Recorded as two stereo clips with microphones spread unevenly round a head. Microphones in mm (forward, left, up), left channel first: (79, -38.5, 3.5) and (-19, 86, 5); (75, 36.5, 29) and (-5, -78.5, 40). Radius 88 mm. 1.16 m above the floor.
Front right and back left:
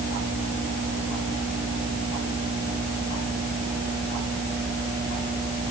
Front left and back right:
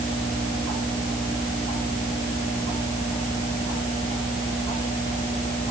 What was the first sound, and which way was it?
Only background noise.